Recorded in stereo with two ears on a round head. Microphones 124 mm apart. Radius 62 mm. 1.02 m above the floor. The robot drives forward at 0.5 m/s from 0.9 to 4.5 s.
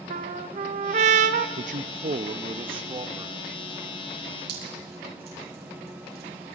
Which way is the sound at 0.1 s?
55° right (ahead or behind).